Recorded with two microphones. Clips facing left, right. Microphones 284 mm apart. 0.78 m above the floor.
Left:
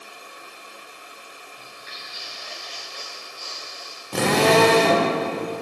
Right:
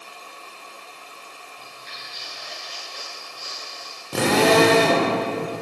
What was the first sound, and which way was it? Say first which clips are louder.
Footsteps: even; 15° left (ahead or behind).